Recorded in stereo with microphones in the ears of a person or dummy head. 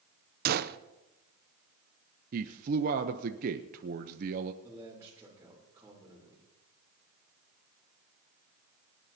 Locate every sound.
0.5 s a gunshot: 45° right (ahead or behind), 0.6 m
2.3 s a man speaking: 40° right (ahead or behind), 0.8 m
4.6 s a man speaking: 10° right (ahead or behind), 3.5 m